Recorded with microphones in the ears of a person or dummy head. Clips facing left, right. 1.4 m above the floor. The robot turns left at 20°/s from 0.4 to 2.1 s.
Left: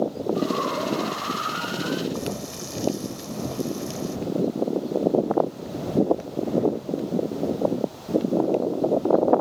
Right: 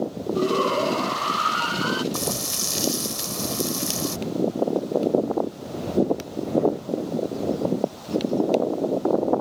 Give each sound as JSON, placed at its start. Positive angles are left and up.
{"t": 0.3, "sound": "a shout", "azimuth_deg": -50}
{"t": 2.1, "sound": "frying", "side_deg": -55}